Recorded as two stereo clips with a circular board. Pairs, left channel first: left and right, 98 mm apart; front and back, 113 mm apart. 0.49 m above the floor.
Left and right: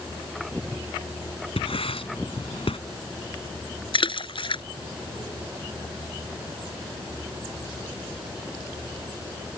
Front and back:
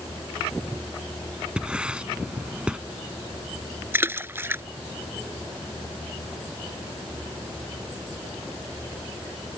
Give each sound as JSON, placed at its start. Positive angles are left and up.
{"t": 1.6, "sound": "writing", "azimuth_deg": 100}
{"t": 3.9, "sound": "a splash", "azimuth_deg": 110}